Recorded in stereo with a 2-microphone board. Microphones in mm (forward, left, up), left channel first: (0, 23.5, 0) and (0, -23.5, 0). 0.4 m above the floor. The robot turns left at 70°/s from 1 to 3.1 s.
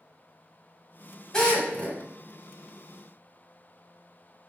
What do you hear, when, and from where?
1.3 s a drill: 15° left (ahead or behind), 1.4 m; by 2.0 s 20° left (ahead or behind), 1.4 m